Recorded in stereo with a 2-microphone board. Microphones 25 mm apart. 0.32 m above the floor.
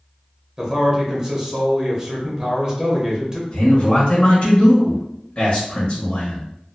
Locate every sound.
0.6 s a man speaking: 25° right (ahead or behind), 1.0 m
3.5 s a man speaking: 30° left (ahead or behind), 1.3 m